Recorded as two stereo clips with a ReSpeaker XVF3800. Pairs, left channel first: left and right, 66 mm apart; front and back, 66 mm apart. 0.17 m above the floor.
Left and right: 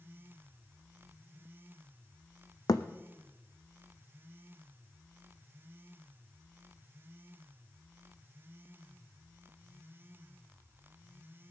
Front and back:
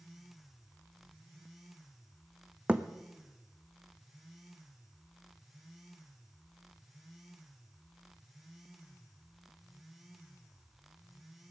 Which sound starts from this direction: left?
A thud, at 2.7 s.